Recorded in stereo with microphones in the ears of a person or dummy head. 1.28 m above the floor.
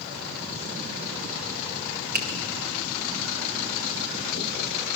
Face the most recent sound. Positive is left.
turn(degrees=-50)  # may be behind; listen again after turning